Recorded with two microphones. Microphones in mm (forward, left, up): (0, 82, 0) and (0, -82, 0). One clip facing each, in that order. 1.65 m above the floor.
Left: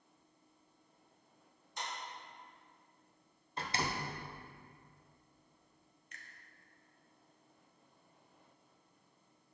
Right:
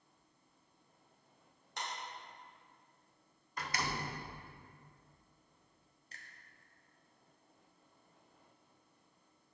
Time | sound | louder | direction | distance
1.8 | a clap | even | 70° right (ahead or behind) | 2.5 m
3.6 | a door slam | left 1 dB | 25° left (ahead or behind) | 0.6 m
6.1 | a finger snap | even | 35° right (ahead or behind) | 0.8 m